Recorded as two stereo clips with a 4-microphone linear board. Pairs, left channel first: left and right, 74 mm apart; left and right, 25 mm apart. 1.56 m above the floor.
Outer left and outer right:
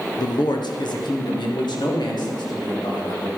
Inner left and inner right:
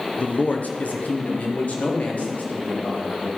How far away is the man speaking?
About 0.8 m.